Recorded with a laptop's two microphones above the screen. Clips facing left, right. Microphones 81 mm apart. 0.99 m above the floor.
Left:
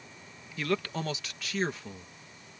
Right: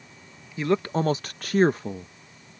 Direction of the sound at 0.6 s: 20° right (ahead or behind).